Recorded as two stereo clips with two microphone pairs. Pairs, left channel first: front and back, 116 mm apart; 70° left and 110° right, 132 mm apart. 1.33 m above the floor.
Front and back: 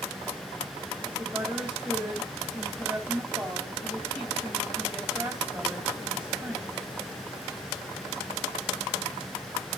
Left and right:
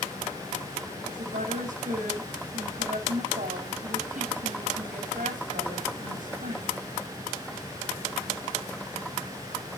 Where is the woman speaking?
95° right, 4 m.